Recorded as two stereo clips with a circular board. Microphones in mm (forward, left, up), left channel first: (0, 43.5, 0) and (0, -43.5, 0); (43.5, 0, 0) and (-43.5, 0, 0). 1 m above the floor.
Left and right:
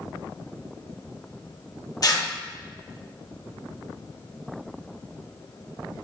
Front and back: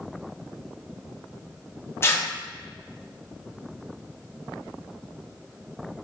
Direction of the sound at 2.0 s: 55° left.